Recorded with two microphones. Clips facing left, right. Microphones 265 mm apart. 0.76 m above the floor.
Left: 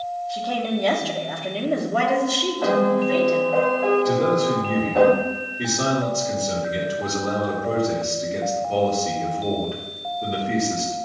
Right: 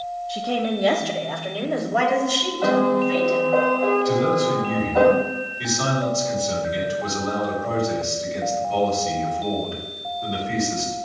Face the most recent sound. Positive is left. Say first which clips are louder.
# even
turn(degrees=60)  # may be behind; listen again after turning